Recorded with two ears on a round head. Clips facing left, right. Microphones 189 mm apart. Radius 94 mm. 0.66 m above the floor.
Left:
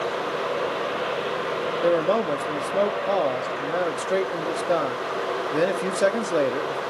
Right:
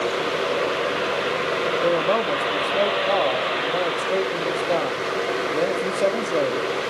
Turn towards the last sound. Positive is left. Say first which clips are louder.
# left 2 dB
turn(degrees=15)  # may be behind; listen again after turning